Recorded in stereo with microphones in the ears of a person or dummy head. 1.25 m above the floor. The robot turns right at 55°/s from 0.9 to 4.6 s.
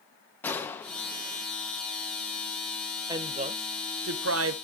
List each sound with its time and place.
0.4 s a gunshot: 175° left, 1.2 m; by 1.4 s 155° right, 1.2 m
3.1 s a woman speaking: 155° right, 0.7 m; by 4.5 s 75° right, 0.7 m